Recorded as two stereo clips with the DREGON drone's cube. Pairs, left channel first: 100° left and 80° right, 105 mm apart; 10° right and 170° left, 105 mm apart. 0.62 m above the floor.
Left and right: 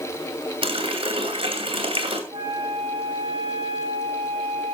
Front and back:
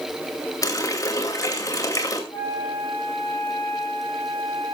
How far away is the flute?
About 5 m.